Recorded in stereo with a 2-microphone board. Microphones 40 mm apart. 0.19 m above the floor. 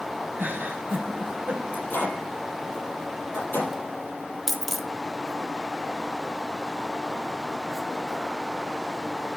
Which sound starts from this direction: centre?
A dropped coin, at 4.5 s.